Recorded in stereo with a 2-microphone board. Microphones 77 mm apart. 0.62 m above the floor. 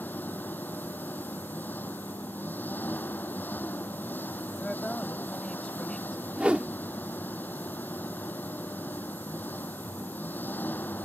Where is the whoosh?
15° right (ahead or behind).